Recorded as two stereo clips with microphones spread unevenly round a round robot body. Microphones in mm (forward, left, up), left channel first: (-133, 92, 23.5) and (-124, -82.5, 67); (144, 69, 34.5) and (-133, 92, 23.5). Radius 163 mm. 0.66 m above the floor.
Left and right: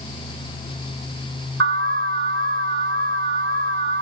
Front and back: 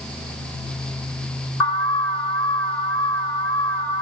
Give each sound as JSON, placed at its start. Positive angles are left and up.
{"t": 1.6, "sound": "an alarm", "azimuth_deg": -90, "distance_m": 5.5}